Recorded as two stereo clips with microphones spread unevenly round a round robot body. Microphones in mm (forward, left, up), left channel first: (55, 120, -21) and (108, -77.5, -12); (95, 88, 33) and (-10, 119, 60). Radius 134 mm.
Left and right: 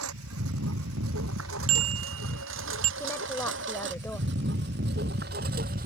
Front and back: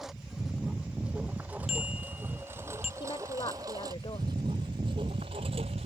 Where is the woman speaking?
25° left.